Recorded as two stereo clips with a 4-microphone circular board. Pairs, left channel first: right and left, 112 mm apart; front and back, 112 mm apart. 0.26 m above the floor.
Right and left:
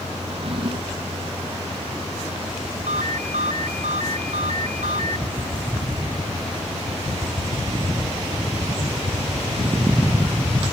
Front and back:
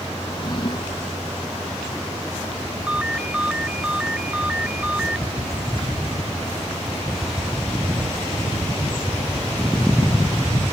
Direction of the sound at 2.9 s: 100° left.